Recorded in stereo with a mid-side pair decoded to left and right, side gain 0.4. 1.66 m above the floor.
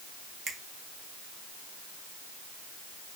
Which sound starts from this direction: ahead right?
A finger snap, at 0.5 s.